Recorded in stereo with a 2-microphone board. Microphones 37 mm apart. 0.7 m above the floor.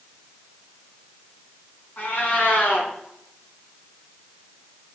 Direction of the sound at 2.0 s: 60° left (ahead or behind).